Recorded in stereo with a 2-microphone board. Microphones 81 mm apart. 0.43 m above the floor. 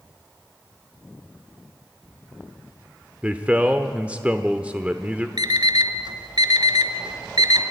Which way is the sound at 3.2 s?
15° right (ahead or behind).